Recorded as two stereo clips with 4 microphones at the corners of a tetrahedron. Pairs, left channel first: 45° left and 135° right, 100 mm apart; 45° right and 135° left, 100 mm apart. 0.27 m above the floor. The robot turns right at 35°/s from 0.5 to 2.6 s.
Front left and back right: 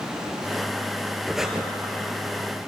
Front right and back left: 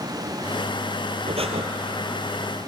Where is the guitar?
No guitar in this recording.